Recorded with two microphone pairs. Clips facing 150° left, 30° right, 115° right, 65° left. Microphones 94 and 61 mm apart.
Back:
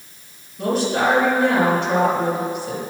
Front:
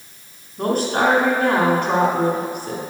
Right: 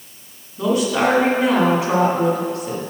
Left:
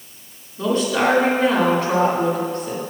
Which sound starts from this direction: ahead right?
A woman speaking, at 0.6 s.